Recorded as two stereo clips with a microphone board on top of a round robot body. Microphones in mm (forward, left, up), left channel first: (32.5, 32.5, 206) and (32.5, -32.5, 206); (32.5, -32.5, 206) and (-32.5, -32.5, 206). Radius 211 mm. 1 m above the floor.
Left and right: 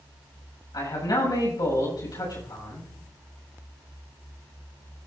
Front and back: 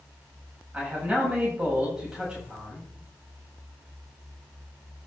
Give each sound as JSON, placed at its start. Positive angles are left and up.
{"t": 0.7, "sound": "a man speaking", "azimuth_deg": 105, "distance_m": 7.5}